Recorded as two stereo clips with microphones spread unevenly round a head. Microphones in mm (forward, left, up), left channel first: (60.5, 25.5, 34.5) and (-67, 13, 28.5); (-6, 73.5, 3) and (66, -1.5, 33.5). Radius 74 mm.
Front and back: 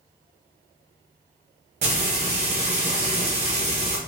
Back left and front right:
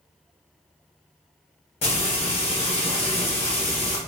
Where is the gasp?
No gasp in this recording.